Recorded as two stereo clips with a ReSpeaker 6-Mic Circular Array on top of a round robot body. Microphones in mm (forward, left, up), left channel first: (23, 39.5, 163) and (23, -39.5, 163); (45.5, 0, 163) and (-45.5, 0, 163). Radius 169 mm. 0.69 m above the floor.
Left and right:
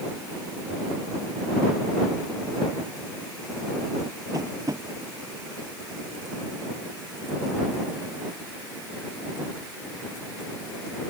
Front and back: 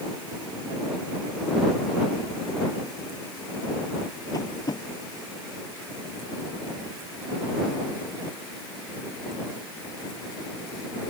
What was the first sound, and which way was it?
Tapping, 45° right.